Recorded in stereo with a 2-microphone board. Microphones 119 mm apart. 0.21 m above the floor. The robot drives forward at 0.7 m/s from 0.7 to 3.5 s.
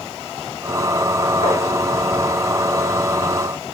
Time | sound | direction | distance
1.4 | tapping | 50° left (ahead or behind) | 2.5 m